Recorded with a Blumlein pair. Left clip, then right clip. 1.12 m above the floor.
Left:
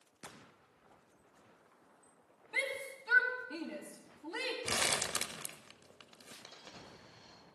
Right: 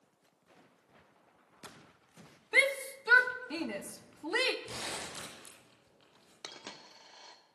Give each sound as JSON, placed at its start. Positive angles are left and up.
{"t": 2.5, "sound": "a shout", "azimuth_deg": -30, "distance_m": 0.9}
{"t": 4.7, "sound": "crumpling", "azimuth_deg": 55, "distance_m": 1.0}
{"t": 6.4, "sound": "a dropped coin", "azimuth_deg": -50, "distance_m": 1.3}